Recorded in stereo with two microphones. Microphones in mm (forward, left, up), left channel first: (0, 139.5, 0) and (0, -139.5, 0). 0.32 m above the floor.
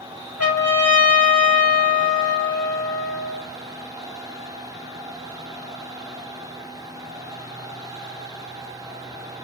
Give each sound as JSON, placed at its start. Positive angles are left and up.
{"t": 0.4, "sound": "a trumpet", "side_deg": 60, "distance_m": 2.5}